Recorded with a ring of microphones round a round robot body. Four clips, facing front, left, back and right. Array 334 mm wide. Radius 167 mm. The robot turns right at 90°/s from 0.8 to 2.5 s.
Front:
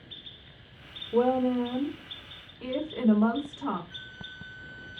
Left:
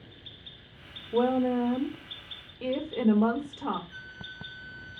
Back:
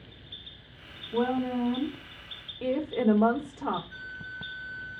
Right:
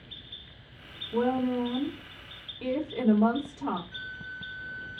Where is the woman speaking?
35° left, 1.3 m; by 3.8 s 160° left, 1.3 m.